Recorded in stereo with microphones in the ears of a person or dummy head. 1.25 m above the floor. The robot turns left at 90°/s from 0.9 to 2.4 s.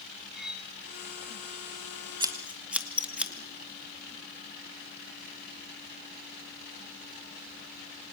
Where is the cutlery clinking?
Centre (ahead or behind), 1.0 m.